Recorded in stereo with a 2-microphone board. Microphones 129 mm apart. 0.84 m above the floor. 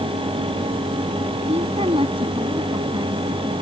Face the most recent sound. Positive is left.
turn(degrees=-25)  # may be behind; listen again after turning